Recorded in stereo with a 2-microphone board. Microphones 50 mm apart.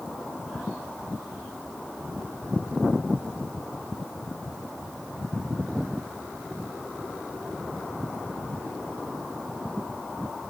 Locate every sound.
Only background noise.